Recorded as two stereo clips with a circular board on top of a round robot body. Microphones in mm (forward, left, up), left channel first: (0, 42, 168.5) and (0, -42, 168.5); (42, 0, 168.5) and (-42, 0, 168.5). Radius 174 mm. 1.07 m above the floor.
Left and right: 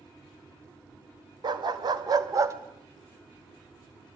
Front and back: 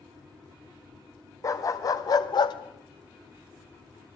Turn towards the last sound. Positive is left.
turn(degrees=-30)